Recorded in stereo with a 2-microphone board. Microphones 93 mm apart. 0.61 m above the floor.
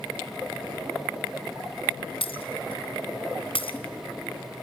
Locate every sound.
2.2 s breaking glass: 85° left, 2.5 m